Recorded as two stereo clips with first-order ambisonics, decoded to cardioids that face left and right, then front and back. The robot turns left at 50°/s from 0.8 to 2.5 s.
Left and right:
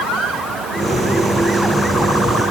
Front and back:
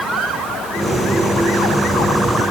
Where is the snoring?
I don't hear snoring.